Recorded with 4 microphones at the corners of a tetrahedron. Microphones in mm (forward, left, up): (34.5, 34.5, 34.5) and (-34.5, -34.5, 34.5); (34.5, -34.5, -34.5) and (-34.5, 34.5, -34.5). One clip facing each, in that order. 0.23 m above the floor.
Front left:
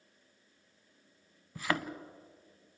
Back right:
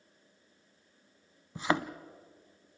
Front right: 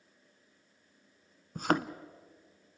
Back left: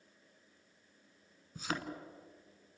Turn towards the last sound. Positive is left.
turn(degrees=-70)